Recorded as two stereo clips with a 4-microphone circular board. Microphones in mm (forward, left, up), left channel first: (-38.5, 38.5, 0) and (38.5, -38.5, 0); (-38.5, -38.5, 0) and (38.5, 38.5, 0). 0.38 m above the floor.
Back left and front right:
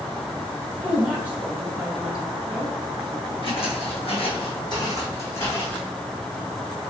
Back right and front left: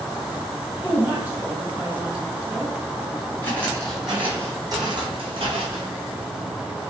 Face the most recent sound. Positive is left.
turn(degrees=60)